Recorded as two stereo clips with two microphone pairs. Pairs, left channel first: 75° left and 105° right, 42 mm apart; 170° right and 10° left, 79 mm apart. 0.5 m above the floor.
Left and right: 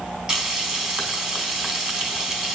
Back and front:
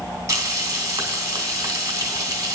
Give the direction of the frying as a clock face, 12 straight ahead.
1 o'clock.